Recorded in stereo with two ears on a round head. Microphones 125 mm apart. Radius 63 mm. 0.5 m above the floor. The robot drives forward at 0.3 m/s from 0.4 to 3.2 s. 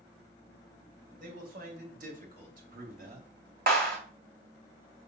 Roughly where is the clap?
Right.